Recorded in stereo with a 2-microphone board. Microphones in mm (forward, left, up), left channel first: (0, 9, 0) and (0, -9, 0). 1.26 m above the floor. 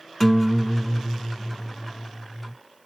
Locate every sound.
0.2 s a guitar: 10° left (ahead or behind), 1.4 m